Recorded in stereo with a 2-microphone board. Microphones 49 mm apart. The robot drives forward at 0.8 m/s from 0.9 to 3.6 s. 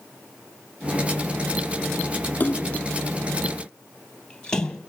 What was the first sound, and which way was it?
A splash, 35° left (ahead or behind).